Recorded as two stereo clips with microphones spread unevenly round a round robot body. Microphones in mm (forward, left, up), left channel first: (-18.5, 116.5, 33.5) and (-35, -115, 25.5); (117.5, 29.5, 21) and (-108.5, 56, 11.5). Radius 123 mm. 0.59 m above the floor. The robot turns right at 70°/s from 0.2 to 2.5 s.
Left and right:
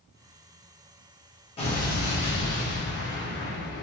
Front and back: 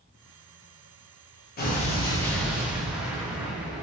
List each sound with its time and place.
1.6 s an explosion: 25° left, 0.8 m; by 3.8 s 90° left, 0.8 m